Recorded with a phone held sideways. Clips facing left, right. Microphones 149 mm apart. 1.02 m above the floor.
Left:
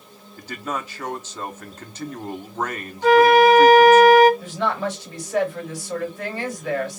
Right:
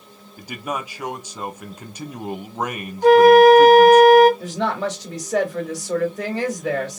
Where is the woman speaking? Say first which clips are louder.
Right 1 dB; 85° right, 2 m.